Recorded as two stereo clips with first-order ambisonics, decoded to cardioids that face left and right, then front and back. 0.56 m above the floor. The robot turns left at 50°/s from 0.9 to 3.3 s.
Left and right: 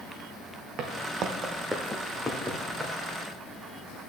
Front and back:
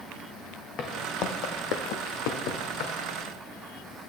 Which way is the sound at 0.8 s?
50° right.